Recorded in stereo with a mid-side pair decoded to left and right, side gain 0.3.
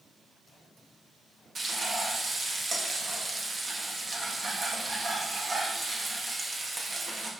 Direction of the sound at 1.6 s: 50° right.